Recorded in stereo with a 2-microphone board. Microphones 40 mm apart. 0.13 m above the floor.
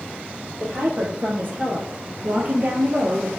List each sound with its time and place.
0.6 s a woman speaking: 55° right (ahead or behind), 3.5 m; by 3.3 s 50° right (ahead or behind), 2 m